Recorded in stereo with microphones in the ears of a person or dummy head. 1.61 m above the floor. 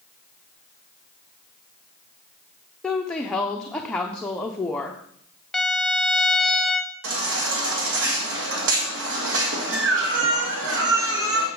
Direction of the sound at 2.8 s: Centre (ahead or behind).